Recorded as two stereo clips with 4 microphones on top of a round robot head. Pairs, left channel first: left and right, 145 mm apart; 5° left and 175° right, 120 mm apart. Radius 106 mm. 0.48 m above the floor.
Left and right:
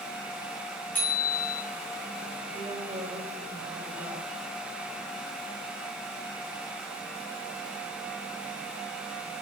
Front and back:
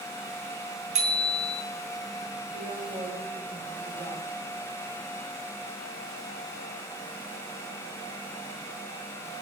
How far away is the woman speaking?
About 10 m.